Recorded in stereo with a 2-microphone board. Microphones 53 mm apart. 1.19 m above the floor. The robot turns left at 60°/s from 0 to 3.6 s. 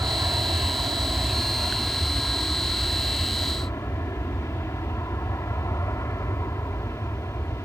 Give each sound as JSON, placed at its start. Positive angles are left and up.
{"t": 0.0, "sound": "an aircraft", "azimuth_deg": -65}